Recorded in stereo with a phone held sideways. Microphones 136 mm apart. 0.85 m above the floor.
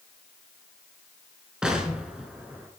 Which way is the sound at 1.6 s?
5° right (ahead or behind).